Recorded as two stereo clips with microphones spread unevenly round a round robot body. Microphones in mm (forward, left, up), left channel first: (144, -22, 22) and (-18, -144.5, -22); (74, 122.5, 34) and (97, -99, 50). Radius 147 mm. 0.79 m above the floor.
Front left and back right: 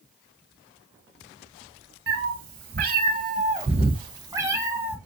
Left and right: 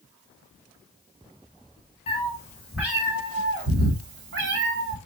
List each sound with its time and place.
2.1 s a cat meowing: 165° left, 0.9 m; by 5.0 s 55° right, 1.4 m